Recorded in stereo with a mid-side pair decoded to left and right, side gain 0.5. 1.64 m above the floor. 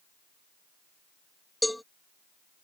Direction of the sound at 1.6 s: 5° left.